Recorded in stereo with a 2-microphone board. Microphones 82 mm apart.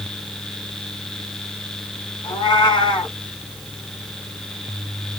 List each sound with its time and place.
2.2 s a cat meowing: 65° left (ahead or behind), 1.4 m